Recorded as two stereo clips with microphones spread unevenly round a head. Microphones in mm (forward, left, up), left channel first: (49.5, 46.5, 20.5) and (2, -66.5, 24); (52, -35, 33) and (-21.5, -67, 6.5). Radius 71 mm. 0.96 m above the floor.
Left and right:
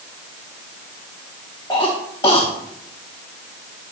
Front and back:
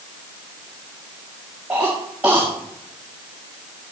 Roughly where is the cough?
Behind left.